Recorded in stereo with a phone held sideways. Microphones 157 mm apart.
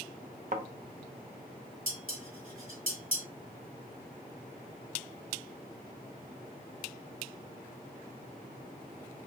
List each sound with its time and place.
0.5 s a thud: 55° right (ahead or behind), 0.8 m
1.9 s dishes clattering: 60° right (ahead or behind), 3 m